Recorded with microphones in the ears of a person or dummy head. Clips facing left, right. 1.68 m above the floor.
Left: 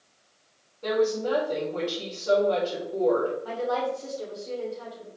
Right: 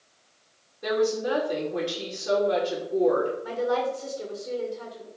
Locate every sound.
0.8 s a woman speaking: 15° right (ahead or behind), 2.5 m
3.4 s a woman speaking: 25° right (ahead or behind), 2.5 m